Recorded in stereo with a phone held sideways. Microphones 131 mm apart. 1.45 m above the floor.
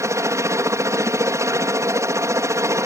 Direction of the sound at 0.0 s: 20° right (ahead or behind).